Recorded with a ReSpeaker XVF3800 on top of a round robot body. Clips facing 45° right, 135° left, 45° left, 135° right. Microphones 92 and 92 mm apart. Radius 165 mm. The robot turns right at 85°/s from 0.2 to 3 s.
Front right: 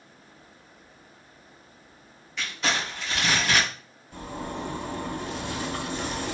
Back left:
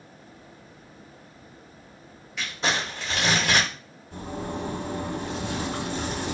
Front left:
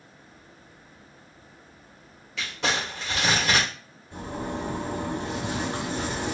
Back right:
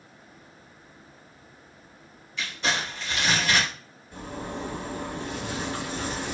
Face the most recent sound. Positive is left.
turn(degrees=115)